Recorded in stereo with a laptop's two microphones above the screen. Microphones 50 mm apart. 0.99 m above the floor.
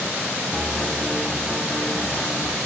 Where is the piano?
Centre (ahead or behind), 1.0 m.